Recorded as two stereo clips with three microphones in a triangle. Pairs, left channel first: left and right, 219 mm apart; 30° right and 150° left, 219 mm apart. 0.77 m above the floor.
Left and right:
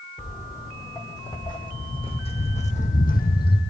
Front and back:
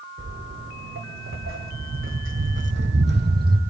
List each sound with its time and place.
0.2 s footsteps: 170° left, 3 m; by 3.6 s 115° left, 1.3 m